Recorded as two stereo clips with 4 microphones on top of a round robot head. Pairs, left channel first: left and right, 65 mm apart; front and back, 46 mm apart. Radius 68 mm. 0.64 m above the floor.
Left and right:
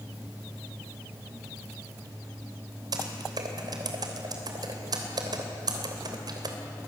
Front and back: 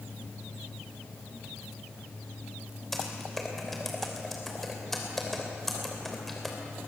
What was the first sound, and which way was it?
Typing on a keyboard, 85° right.